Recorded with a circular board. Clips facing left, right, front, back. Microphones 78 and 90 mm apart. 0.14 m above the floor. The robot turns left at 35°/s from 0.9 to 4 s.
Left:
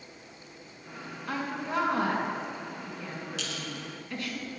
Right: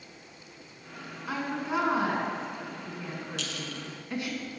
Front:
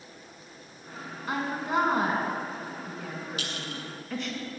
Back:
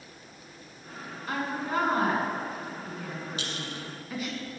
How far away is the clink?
About 1.0 m.